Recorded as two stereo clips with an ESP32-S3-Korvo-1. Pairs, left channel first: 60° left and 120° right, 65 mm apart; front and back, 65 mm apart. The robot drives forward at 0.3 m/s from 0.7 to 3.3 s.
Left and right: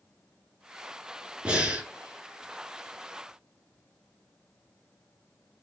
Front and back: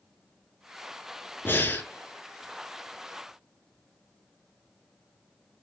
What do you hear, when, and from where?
1.4 s breathing: 50° right, 1.2 m; by 1.9 s 60° right, 1.1 m